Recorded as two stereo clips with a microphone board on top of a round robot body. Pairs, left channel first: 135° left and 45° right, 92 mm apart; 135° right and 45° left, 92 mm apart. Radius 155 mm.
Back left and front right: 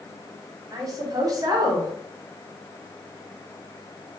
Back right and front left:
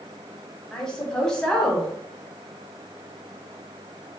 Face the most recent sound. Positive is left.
turn(degrees=-55)